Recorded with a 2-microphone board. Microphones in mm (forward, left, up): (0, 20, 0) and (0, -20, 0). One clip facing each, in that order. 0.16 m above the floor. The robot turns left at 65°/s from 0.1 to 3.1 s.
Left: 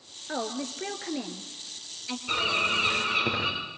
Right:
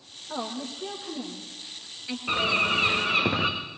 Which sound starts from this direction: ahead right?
A bird, at 2.3 s.